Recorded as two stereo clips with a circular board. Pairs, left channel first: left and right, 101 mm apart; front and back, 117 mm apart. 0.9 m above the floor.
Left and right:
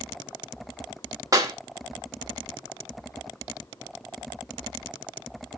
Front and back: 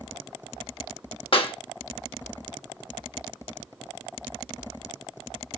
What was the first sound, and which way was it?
A clap, 35° right.